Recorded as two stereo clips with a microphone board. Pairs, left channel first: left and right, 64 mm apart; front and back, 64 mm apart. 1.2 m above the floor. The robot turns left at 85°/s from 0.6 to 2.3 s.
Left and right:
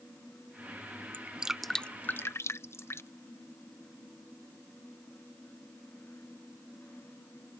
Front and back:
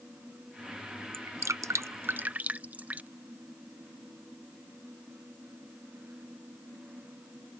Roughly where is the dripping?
Behind right.